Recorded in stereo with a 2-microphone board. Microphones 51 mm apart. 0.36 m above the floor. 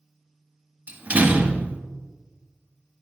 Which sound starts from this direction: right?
A door slam, at 0.9 s.